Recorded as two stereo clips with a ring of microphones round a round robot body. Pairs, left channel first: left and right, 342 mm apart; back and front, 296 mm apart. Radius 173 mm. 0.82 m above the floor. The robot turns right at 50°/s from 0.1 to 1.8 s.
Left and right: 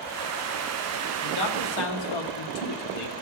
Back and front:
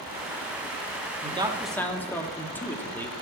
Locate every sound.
1.2 s a man speaking: 65° left, 1.4 m; by 3.2 s 95° left, 1.4 m